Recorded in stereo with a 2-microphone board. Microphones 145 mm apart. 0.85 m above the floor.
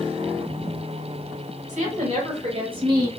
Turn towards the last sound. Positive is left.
turn(degrees=-25)  # may be behind; listen again after turning